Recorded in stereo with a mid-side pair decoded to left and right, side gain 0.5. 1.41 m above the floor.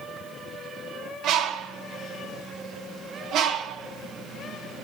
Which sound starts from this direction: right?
A bird, at 1.2 s.